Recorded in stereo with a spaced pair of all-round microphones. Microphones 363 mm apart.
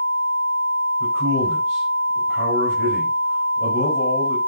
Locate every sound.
1.0 s a man speaking: 35° left (ahead or behind), 4.5 m